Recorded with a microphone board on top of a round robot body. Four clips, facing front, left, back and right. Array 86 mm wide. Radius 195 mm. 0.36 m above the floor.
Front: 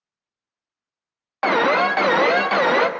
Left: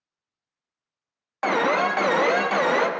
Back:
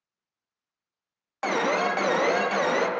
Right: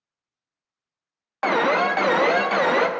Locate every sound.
1.4 s an alarm: 10° right, 0.5 m